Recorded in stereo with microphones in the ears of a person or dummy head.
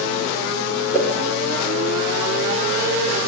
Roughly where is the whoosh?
Centre.